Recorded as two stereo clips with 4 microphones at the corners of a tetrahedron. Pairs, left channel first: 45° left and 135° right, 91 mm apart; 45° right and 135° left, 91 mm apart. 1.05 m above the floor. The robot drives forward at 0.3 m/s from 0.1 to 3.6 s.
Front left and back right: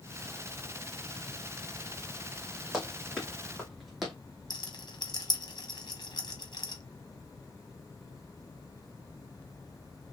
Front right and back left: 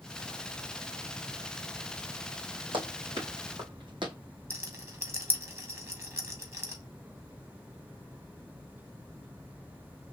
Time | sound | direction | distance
2.7 | running footsteps | 135° left | 3 m
4.5 | a rattle | 80° left | 1.3 m